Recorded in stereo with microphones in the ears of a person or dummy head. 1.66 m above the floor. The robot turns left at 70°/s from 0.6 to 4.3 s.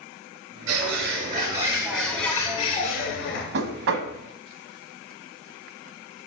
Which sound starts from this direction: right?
A bird, at 0.7 s.